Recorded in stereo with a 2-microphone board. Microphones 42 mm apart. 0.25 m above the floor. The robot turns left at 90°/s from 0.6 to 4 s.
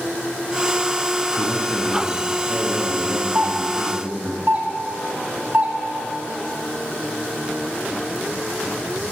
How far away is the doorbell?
About 2.5 m.